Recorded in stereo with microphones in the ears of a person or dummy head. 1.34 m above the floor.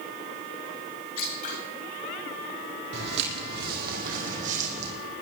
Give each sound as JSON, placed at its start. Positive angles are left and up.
{"t": 1.2, "sound": "scissors", "side_deg": 50, "distance_m": 8.0}
{"t": 2.9, "sound": "footsteps", "side_deg": -70, "distance_m": 3.5}